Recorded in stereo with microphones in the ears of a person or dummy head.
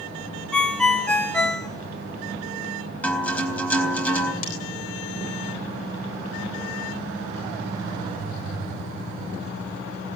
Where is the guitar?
5° left (ahead or behind), 4 m.